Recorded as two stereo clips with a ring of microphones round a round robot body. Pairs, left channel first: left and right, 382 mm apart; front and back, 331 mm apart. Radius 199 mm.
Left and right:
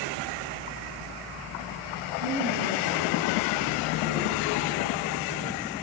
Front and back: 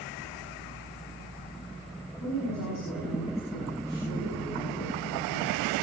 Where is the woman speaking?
50° right, 6 m.